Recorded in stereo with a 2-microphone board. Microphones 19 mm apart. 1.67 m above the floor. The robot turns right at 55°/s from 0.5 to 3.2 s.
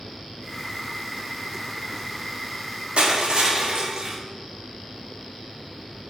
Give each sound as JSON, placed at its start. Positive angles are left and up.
{"t": 3.0, "sound": "crushing", "side_deg": -55, "distance_m": 0.6}